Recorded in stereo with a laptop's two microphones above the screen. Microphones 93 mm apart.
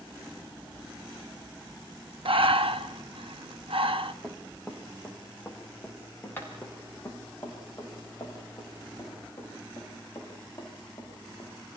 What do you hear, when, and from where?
2.2 s breathing: 70° right (ahead or behind), 1.0 m
4.2 s running footsteps: centre (ahead or behind), 4.5 m; by 11.5 s 40° left (ahead or behind), 12.5 m